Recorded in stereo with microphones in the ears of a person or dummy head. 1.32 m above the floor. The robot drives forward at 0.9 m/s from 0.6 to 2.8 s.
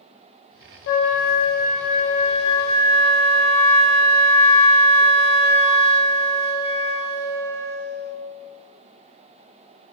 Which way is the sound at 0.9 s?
60° left (ahead or behind).